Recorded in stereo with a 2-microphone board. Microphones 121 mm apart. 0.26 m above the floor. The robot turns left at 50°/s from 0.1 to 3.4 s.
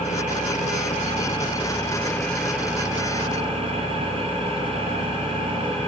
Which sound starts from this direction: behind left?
An engine running, at 0.0 s.